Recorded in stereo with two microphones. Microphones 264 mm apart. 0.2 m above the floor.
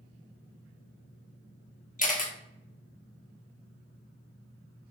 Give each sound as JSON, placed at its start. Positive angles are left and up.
{"t": 2.0, "sound": "a camera shutter", "side_deg": 30, "distance_m": 0.9}